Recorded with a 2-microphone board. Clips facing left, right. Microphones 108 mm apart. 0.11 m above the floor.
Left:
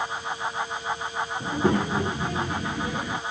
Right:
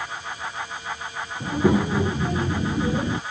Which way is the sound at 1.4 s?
5° right (ahead or behind).